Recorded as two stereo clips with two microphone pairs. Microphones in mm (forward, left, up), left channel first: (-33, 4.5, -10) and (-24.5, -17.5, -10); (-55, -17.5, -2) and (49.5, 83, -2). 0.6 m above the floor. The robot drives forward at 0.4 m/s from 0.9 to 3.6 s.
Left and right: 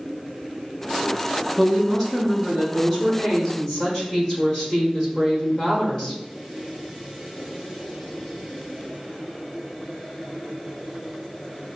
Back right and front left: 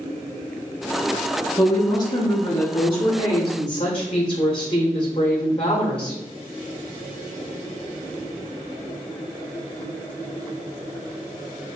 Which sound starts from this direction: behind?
A woman speaking, at 1.6 s.